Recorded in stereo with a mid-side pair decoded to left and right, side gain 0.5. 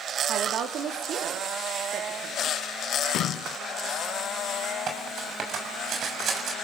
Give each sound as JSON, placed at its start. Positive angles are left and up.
{"t": 0.3, "sound": "a woman speaking", "azimuth_deg": -65, "distance_m": 3.5}
{"t": 3.0, "sound": "a splash", "azimuth_deg": 65, "distance_m": 0.6}
{"t": 4.9, "sound": "cutlery clinking", "azimuth_deg": -55, "distance_m": 6.5}